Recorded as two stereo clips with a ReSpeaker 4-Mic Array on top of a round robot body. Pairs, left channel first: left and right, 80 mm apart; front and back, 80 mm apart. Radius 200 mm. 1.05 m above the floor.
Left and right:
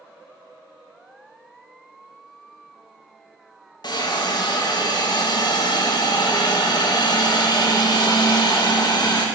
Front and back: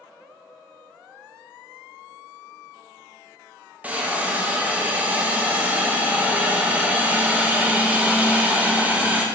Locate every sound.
3.8 s a hiss: 110° left, 1.0 m